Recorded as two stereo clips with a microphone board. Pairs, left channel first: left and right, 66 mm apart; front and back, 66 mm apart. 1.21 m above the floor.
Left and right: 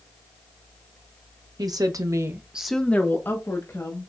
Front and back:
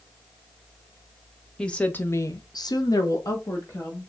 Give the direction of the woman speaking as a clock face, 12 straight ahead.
3 o'clock.